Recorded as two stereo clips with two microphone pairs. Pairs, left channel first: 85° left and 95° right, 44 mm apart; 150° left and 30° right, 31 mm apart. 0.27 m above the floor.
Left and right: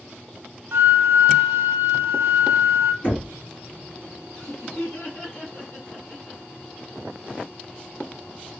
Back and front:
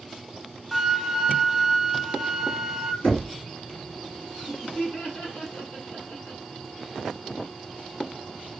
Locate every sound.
0.7 s a flute: 115° right, 0.6 m
3.0 s knocking: 130° left, 2.5 m
4.4 s laughter: 120° left, 2.5 m